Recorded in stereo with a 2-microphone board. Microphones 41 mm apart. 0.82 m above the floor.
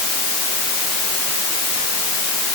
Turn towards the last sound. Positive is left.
No sound to turn to.